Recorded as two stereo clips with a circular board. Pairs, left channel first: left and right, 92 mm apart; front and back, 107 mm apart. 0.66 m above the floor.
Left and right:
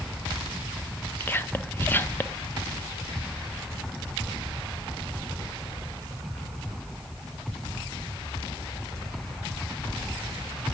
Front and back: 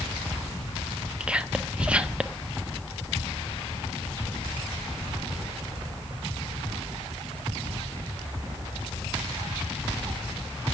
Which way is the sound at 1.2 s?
115° left.